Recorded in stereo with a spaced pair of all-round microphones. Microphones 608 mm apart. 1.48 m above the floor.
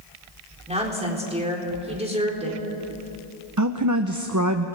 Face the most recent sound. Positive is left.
turn(degrees=-30)  # may be behind; listen again after turning